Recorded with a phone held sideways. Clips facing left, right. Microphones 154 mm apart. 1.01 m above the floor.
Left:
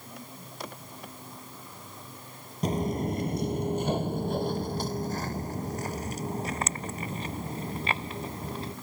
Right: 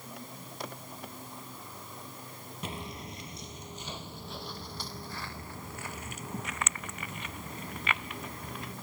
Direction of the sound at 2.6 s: 40° left (ahead or behind).